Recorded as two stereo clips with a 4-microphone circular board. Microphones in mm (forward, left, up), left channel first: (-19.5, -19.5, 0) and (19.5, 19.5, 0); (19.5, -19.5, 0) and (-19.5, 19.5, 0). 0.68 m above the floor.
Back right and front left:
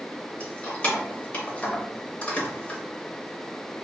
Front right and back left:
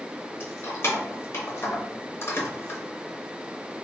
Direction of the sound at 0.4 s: 75° right.